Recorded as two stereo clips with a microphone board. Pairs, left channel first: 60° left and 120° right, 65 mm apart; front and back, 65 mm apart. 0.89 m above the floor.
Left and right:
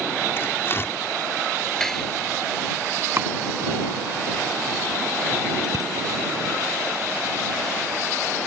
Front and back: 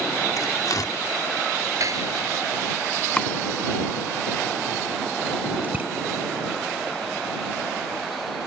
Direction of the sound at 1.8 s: 145° left.